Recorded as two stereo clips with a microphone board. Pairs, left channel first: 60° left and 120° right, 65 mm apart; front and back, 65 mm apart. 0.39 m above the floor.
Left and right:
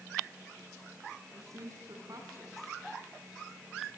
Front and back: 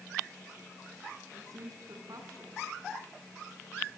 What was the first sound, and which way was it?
A woman speaking, 150° right.